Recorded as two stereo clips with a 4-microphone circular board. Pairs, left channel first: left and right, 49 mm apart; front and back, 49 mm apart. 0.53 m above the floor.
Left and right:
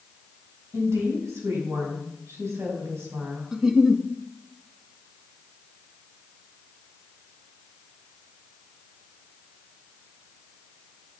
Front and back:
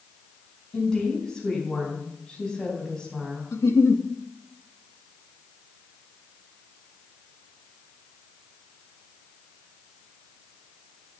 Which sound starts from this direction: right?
A woman speaking, at 0.7 s.